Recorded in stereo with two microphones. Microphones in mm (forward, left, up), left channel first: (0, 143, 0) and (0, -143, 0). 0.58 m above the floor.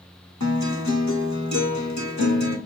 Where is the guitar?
70° left (ahead or behind), 1.5 m.